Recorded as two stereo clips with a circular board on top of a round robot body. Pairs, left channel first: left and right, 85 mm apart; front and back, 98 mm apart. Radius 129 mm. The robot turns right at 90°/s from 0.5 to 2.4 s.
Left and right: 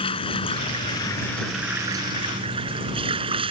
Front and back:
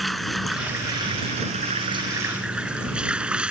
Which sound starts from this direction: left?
Running water, at 0.0 s.